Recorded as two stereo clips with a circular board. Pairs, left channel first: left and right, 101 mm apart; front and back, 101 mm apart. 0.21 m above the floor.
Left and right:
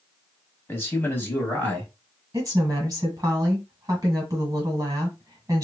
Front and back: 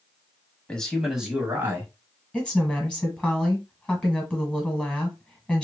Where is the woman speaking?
75° right, 1.3 m.